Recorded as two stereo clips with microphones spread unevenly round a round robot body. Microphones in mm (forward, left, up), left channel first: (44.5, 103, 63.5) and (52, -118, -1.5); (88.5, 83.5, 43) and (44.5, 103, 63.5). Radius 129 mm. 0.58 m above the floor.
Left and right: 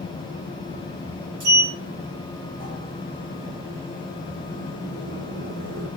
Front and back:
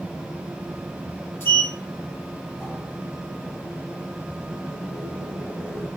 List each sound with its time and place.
1.4 s a sliding door: 125° right, 5.5 m